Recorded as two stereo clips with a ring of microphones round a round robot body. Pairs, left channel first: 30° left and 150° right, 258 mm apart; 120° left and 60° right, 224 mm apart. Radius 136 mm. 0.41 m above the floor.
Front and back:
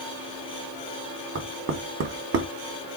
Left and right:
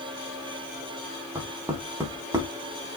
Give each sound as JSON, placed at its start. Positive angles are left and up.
{"t": 1.4, "sound": "knocking", "azimuth_deg": -135, "distance_m": 0.8}